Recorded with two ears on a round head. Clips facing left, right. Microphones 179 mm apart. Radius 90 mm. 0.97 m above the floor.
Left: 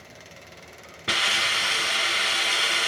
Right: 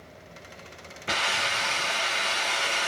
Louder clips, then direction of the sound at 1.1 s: Right 1 dB; 50° left (ahead or behind).